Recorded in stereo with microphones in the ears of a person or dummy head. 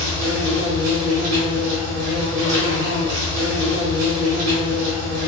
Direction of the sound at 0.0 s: 70° right (ahead or behind).